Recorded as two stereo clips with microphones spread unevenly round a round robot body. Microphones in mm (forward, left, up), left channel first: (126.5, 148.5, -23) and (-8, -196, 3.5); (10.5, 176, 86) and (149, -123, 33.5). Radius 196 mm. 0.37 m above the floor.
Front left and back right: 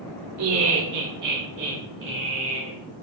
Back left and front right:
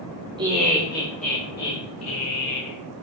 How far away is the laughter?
About 1.2 m.